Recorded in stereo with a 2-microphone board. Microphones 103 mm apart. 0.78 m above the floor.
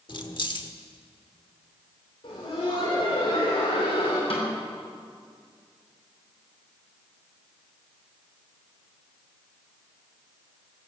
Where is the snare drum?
60° left (ahead or behind), 4.5 m.